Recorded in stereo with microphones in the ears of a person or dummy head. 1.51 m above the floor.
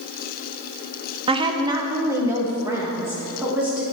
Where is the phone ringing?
I don't hear a phone ringing.